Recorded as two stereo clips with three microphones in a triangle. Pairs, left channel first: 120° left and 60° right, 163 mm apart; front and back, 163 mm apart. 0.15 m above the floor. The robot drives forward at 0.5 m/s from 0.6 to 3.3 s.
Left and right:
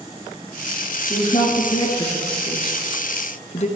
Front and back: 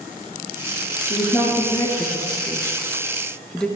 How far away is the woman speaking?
About 3 m.